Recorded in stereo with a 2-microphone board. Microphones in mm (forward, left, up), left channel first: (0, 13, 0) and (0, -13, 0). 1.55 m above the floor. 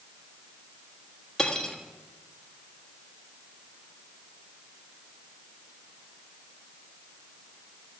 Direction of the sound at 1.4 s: 15° left (ahead or behind).